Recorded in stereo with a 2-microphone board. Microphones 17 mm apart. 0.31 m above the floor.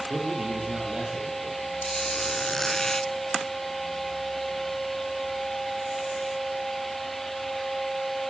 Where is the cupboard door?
I don't hear a cupboard door.